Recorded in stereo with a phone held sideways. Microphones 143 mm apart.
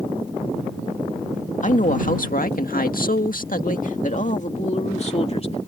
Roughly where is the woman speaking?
Left.